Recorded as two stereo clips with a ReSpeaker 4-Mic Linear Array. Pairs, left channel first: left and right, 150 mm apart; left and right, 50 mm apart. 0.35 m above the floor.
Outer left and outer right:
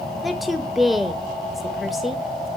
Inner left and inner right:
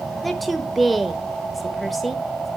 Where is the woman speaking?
Centre (ahead or behind), 0.8 m.